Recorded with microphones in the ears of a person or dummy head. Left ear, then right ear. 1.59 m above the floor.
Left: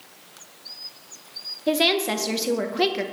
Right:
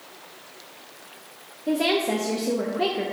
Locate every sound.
1.7 s a woman speaking: 40° left (ahead or behind), 0.5 m